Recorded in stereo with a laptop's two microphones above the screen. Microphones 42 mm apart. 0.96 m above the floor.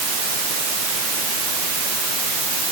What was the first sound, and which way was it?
Only background noise.